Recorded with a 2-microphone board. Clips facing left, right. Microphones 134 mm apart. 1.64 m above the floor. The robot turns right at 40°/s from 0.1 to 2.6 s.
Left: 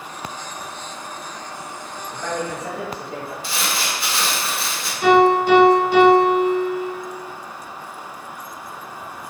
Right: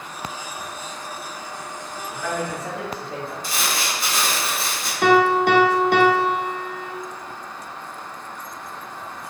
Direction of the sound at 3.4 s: 40° right (ahead or behind).